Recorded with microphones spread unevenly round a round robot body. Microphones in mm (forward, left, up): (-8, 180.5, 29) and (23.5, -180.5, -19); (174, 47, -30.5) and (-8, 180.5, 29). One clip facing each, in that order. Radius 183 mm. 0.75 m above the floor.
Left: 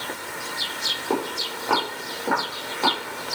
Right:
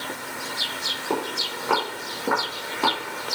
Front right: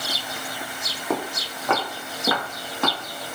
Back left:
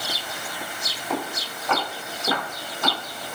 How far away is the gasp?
I don't hear a gasp.